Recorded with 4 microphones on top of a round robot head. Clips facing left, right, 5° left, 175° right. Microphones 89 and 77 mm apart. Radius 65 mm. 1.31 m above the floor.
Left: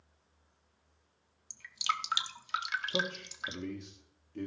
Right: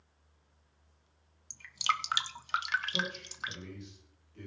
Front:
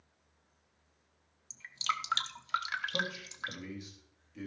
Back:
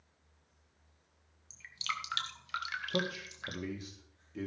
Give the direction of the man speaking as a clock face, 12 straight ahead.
7 o'clock.